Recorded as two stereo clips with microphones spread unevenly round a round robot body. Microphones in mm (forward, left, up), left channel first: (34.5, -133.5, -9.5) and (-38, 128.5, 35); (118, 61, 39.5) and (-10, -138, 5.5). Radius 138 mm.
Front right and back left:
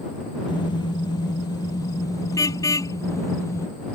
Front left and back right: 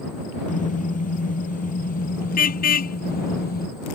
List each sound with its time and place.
0.5 s a car horn: straight ahead; by 3.7 s 5° left